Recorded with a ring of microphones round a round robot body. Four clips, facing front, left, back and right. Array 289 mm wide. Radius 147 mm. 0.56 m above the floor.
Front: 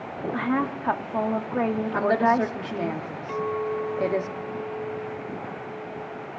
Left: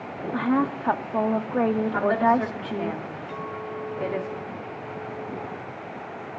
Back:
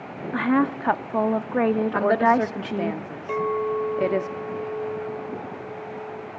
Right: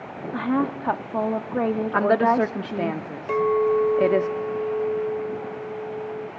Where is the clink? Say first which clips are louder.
Right 17 dB, back 3 dB; 110° right, 1.2 m.